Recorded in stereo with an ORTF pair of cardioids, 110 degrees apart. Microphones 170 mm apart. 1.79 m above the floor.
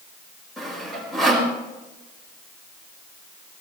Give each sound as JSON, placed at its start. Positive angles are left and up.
{"t": 0.6, "sound": "sawing", "azimuth_deg": 0, "distance_m": 5.0}